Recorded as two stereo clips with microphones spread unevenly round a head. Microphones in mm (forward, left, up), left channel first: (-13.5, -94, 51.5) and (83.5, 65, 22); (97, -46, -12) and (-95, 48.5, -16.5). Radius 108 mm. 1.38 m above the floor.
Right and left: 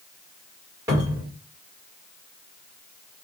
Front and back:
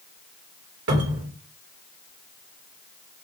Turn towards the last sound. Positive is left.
turn(degrees=130)